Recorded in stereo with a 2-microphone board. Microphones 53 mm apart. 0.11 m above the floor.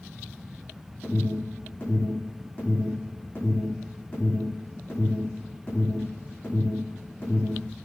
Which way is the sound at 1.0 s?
35° left (ahead or behind).